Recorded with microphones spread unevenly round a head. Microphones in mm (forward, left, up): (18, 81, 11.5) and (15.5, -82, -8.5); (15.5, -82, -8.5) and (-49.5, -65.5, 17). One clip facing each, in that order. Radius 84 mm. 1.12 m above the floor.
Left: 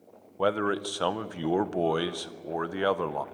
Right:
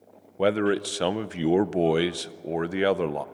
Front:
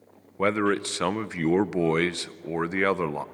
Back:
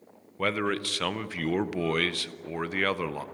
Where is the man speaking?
40° right, 0.6 m.